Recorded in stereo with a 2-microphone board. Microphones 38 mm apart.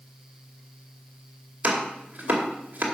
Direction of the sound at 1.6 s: 40° right (ahead or behind).